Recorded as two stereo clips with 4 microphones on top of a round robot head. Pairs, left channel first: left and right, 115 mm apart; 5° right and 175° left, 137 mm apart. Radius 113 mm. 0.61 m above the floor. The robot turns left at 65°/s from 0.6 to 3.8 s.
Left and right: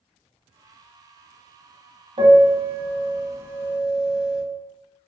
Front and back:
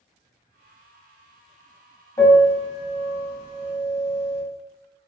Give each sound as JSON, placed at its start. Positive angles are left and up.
{"t": 2.2, "sound": "a piano", "azimuth_deg": -60, "distance_m": 1.1}